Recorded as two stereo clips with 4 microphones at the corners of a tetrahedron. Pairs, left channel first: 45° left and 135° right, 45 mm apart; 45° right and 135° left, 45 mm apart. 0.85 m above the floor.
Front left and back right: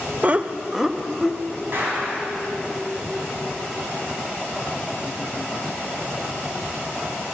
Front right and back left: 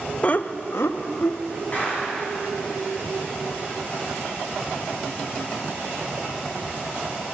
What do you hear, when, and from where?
0.2 s laughter: 90° right, 0.6 m; by 1.4 s 45° right, 1.3 m
1.7 s a clap: 100° right, 6 m